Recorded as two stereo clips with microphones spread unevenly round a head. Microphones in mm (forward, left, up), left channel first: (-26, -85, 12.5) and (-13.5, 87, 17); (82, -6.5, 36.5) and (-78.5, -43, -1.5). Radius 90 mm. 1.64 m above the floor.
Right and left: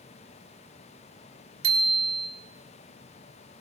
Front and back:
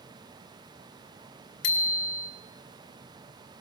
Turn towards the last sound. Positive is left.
turn(degrees=25)